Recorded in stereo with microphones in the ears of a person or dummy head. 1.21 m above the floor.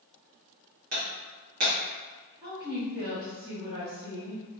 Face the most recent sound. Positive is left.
turn(degrees=-10)  # may be behind; listen again after turning